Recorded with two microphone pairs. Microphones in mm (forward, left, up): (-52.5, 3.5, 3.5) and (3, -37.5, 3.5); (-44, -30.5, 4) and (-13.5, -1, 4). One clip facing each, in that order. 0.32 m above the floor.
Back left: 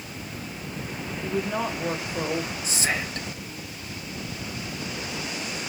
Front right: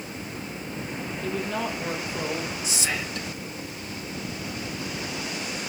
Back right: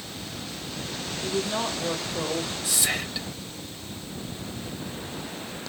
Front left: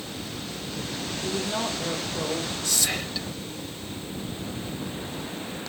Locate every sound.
1.2 s a woman speaking: 165° left, 1.4 m
2.6 s whispering: 155° left, 1.5 m